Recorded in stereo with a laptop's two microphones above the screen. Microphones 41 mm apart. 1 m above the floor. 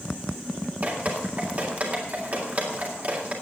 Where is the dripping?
40° right (ahead or behind), 2 m.